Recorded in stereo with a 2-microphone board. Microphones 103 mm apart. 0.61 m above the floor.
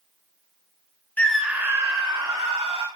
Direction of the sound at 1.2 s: 15° left (ahead or behind).